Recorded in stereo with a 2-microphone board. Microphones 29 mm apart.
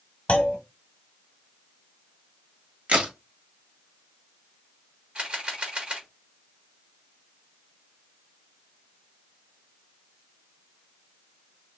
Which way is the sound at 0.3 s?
40° left (ahead or behind).